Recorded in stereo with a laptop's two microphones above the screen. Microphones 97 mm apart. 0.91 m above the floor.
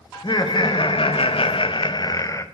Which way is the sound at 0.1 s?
55° left (ahead or behind).